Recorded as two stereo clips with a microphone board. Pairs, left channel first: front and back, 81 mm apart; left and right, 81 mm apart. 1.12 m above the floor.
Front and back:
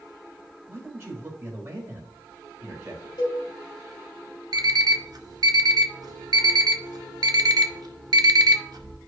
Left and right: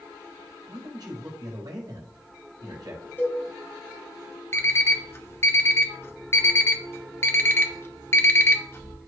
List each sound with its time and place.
0.7 s a man speaking: 125° right, 5 m
3.2 s a cowbell: 25° left, 2 m
4.5 s an alarm clock: 150° left, 0.8 m